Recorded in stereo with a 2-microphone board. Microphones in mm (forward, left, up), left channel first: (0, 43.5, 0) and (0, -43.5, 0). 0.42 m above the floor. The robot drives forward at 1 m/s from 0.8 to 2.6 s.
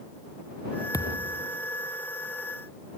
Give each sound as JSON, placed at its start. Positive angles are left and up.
{"t": 0.9, "sound": "a thud", "side_deg": 40}